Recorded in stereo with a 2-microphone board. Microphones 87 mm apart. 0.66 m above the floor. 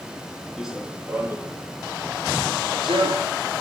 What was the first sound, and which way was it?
Running footsteps, 5° right (ahead or behind).